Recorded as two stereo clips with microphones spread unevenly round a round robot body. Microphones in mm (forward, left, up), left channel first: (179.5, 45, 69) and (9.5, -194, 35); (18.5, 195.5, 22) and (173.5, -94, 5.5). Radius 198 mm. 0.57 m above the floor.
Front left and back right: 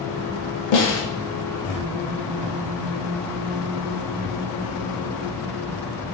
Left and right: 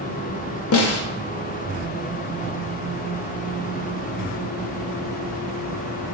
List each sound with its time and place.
0.7 s a snare drum: 70° left, 0.5 m